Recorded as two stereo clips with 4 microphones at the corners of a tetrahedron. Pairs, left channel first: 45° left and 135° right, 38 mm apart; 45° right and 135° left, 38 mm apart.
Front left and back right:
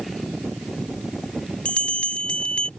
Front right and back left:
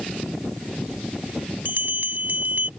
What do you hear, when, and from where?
1.6 s a bell: 105° left